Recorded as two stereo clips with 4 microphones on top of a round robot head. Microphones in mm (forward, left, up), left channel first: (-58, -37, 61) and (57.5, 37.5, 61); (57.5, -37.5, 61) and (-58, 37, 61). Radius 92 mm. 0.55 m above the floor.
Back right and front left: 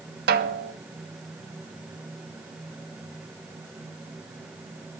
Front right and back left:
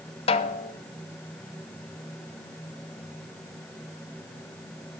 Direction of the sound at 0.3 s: 15° left.